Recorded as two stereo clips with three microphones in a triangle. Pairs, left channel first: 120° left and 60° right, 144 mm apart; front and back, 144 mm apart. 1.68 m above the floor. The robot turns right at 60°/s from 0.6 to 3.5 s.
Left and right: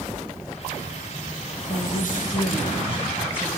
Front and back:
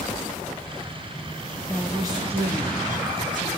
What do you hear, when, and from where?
1.7 s a woman speaking: 95° left, 1.6 m; by 3.5 s 155° right, 1.6 m